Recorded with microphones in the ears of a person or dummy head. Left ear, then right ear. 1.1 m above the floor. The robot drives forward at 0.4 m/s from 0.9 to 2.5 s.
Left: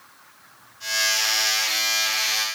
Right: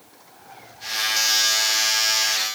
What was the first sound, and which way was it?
Only background noise.